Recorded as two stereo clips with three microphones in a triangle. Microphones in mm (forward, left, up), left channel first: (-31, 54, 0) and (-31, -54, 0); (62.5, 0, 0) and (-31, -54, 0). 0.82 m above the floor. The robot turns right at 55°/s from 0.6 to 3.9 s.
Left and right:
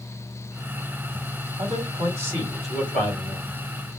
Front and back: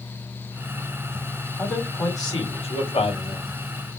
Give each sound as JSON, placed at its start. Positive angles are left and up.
{"t": 1.6, "sound": "a man speaking", "azimuth_deg": -55, "distance_m": 3.0}